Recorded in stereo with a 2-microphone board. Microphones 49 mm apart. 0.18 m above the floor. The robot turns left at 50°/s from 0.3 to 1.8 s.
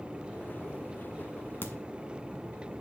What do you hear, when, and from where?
1.6 s a crack: 45° left (ahead or behind), 0.9 m